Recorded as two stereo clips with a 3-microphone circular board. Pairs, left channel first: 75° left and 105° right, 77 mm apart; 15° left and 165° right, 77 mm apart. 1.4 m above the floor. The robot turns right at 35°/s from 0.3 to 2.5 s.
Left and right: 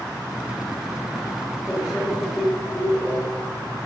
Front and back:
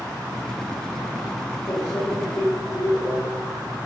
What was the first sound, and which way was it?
A microwave, 30° right.